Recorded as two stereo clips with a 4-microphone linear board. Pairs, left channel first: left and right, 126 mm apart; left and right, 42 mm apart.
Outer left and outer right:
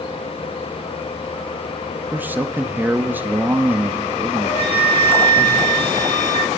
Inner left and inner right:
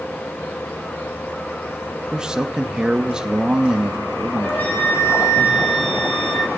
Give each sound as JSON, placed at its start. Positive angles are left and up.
{"t": 2.1, "sound": "a man speaking", "side_deg": -15, "distance_m": 0.6}
{"t": 4.4, "sound": "a flute", "side_deg": 55, "distance_m": 2.5}